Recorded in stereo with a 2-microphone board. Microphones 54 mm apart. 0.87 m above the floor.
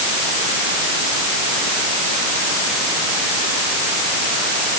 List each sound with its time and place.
Only background noise.